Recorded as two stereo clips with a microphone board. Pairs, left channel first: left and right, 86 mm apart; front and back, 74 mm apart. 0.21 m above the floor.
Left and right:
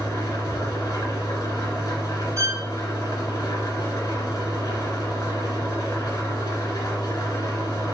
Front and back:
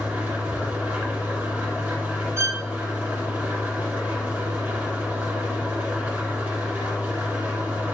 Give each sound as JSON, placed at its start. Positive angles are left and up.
{"t": 0.0, "sound": "an engine running", "azimuth_deg": 110, "distance_m": 1.3}
{"t": 2.4, "sound": "a violin", "azimuth_deg": -130, "distance_m": 1.1}